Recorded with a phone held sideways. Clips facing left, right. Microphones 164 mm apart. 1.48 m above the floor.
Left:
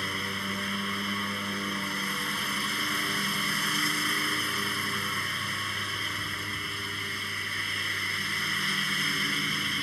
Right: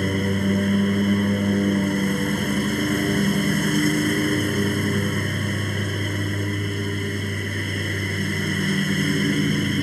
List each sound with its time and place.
0.0 s a lawn mower: 50° right (ahead or behind)